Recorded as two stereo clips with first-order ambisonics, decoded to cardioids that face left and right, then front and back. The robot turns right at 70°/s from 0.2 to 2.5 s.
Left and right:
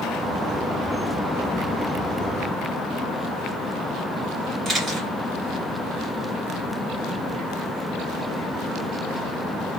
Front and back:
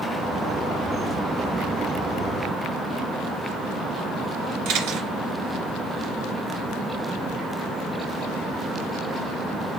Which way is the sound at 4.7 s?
160° right.